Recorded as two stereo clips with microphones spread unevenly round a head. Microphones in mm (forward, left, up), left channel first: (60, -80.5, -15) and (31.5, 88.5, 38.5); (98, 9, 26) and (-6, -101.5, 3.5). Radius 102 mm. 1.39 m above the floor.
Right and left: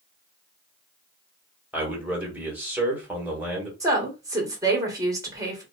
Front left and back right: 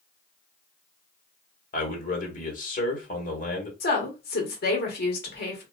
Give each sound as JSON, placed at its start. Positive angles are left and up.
{"t": 1.7, "sound": "a man speaking", "azimuth_deg": 15, "distance_m": 1.3}
{"t": 3.8, "sound": "a woman speaking", "azimuth_deg": 30, "distance_m": 1.2}